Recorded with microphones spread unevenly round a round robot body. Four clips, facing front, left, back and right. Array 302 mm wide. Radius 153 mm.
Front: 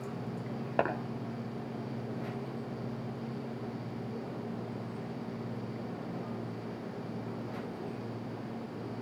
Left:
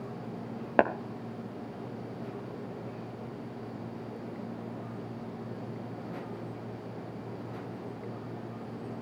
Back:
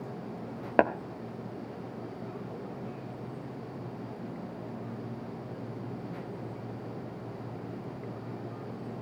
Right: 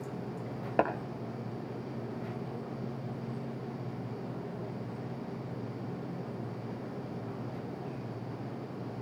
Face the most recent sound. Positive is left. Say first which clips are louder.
# left 4 dB, back 6 dB
turn(degrees=145)